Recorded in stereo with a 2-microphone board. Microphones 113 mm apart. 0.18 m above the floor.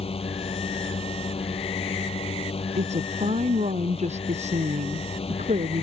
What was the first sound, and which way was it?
A drone, 60° left (ahead or behind).